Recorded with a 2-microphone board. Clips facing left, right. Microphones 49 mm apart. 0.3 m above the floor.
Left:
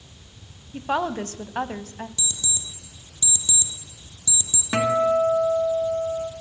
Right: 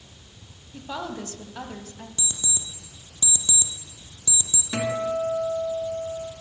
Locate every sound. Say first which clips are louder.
0.7 s a woman speaking: left 8 dB; 50° left (ahead or behind), 1.5 m
2.2 s an alarm clock: left 2 dB; 30° right (ahead or behind), 4.5 m
4.7 s a guitar: left 6 dB; 40° left (ahead or behind), 2 m